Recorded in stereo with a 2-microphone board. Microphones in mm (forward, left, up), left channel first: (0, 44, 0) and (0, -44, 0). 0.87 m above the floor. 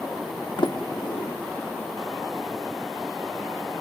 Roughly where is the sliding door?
Left.